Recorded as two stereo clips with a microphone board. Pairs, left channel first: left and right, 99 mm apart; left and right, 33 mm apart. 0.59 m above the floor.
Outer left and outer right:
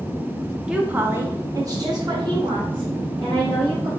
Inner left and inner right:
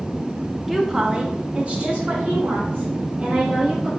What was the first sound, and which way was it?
A woman speaking, 10° right (ahead or behind).